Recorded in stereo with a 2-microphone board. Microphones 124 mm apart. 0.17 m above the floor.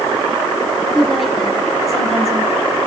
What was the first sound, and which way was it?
A woman speaking, centre (ahead or behind).